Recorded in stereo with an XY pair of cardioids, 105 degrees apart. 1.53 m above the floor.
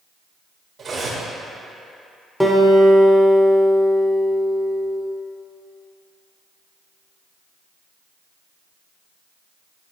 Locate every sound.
0.8 s cutlery clinking: 50° right, 2.0 m
2.4 s a guitar: straight ahead, 1.2 m